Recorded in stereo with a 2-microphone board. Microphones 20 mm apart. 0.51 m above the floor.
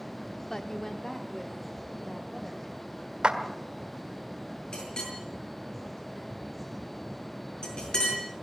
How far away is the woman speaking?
About 0.9 m.